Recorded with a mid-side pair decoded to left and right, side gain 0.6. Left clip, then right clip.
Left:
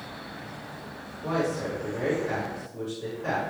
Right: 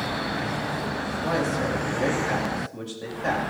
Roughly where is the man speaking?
Ahead right.